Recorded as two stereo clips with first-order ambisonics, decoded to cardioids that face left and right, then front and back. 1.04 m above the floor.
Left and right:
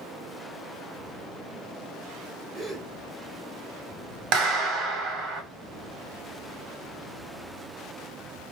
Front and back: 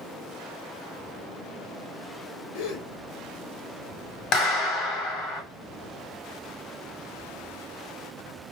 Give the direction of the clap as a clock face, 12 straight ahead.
2 o'clock.